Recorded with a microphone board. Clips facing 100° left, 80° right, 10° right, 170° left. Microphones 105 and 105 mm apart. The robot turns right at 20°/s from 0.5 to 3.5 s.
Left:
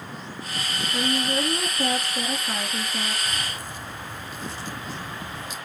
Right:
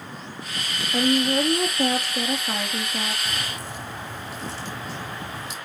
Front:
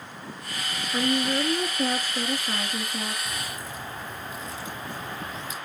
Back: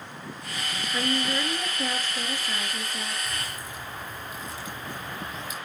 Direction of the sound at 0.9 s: 60° right.